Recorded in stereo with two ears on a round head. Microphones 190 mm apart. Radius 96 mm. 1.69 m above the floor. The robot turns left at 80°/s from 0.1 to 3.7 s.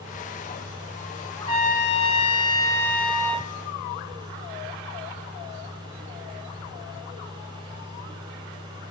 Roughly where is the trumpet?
Behind.